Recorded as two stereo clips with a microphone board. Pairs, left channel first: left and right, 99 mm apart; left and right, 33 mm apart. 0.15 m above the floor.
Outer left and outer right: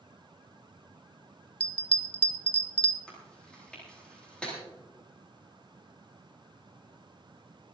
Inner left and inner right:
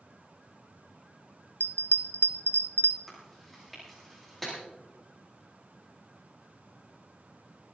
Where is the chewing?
10° left (ahead or behind), 8.5 m.